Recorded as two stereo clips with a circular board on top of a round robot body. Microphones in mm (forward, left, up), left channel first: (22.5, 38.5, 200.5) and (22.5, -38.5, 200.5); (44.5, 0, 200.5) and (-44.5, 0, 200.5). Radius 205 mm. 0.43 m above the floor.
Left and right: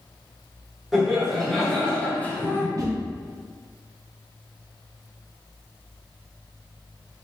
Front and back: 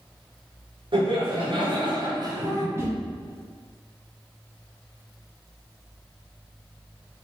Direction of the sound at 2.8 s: 120° right.